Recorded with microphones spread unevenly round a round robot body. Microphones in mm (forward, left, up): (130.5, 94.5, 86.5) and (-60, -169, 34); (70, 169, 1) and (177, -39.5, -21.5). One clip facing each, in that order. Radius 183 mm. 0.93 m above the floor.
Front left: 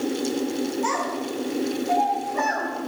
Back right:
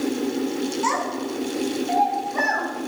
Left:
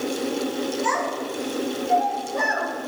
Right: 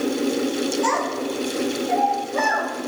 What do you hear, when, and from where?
0.8 s a child speaking: 95° right, 5.5 m; by 2.7 s 80° right, 4.5 m